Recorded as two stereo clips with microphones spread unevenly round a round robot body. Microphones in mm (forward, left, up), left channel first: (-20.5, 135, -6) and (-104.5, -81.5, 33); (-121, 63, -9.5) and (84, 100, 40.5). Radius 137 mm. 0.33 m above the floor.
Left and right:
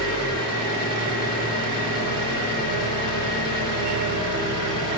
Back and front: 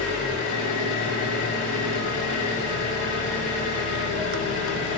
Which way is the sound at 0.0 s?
125° right.